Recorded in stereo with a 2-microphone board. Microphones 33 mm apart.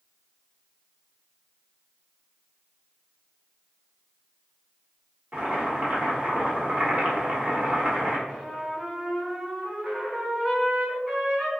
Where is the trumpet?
20° right (ahead or behind), 1.8 m.